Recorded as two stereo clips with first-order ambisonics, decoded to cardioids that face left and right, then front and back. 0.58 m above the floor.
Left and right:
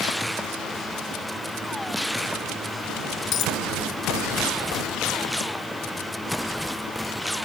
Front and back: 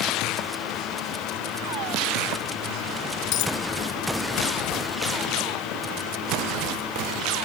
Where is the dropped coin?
40° left.